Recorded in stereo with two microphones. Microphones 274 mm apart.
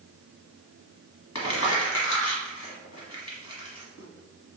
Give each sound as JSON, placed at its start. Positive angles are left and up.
{"t": 1.4, "sound": "crumpling", "side_deg": 70, "distance_m": 1.1}